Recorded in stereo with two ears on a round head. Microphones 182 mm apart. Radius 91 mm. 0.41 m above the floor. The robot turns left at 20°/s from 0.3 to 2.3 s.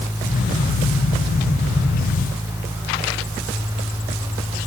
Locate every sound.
Only background noise.